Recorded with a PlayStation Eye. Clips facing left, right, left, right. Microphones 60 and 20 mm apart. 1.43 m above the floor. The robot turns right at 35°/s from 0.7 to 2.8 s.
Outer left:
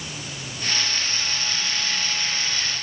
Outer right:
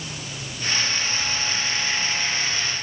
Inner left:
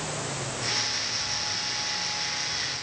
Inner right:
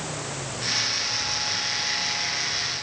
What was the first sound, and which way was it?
Only background noise.